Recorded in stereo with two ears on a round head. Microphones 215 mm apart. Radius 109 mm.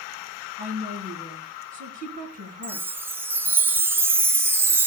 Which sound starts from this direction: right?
A woman speaking, at 0.6 s.